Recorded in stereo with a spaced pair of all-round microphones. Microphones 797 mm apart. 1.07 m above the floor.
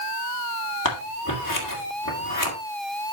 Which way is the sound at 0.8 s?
25° left (ahead or behind).